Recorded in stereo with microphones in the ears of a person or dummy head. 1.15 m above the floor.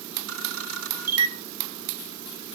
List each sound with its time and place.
0.3 s a camera shutter: 70° right (ahead or behind), 2 m